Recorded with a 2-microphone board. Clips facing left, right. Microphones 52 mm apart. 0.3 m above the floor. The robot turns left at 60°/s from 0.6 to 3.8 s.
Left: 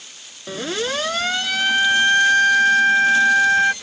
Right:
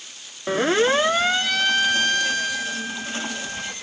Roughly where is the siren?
Right.